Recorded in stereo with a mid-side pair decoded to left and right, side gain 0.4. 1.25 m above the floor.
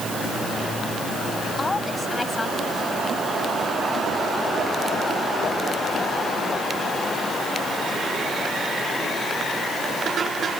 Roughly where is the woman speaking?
Ahead left.